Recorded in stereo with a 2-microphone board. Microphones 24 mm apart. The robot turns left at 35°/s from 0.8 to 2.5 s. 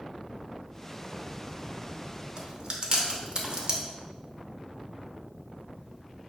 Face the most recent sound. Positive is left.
turn(degrees=-35)  # may be behind; listen again after turning